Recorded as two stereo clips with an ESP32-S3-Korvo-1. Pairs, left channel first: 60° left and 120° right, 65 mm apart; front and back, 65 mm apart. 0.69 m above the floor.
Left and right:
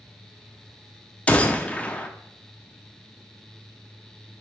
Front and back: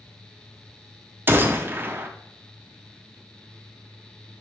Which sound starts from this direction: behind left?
A gunshot, at 1.3 s.